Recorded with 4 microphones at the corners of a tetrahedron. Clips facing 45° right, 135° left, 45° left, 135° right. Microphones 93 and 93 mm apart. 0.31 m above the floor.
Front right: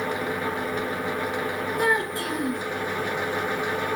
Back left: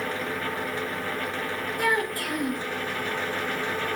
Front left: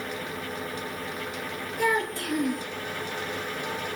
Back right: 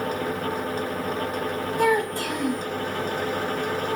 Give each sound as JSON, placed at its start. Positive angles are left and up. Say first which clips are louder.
{"t": 1.8, "sound": "a child speaking", "louder": "front right 1 dB, back right 4 dB", "azimuth_deg": -110, "distance_m": 1.9}